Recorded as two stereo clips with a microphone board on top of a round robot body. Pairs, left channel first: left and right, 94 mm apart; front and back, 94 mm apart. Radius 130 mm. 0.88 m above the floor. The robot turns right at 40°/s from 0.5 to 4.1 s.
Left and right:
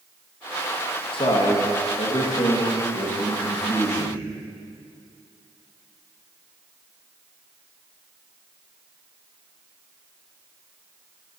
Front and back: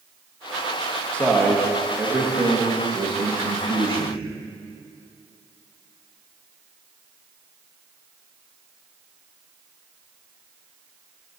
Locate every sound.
1.1 s a man speaking: 75° left, 1.4 m; by 4.2 s 165° right, 1.4 m